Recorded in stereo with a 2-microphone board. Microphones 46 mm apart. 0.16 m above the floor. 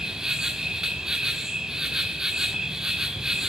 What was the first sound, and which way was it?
An insect, 15° right (ahead or behind).